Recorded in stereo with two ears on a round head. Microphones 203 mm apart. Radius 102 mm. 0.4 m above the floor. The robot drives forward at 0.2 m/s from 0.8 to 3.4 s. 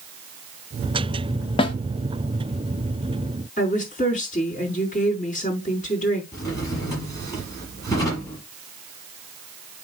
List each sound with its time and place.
1.6 s a snare drum: 25° left (ahead or behind), 0.9 m; by 1.8 s 20° left (ahead or behind), 0.9 m
3.6 s a woman speaking: 40° left (ahead or behind), 4.5 m
6.3 s a drawer: 15° left (ahead or behind), 6 m